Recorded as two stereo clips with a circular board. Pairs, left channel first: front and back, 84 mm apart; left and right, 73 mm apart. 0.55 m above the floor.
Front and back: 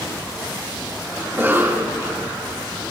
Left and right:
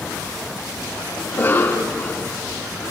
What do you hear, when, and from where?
1.2 s a cough: 130° left, 1.6 m